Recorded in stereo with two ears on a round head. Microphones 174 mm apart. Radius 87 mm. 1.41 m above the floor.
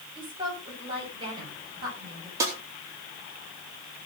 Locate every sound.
0.1 s a woman speaking: 25° right (ahead or behind), 7 m
2.4 s a snare drum: 15° right (ahead or behind), 3.5 m